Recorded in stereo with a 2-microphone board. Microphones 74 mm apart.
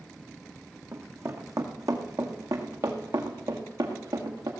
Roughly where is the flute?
I don't hear a flute.